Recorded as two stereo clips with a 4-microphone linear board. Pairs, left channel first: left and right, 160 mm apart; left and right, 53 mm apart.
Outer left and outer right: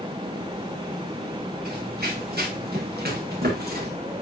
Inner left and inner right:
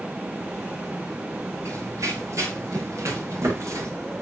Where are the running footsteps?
90° right, 6.5 m; by 3.9 s 75° right (ahead or behind), 5.5 m.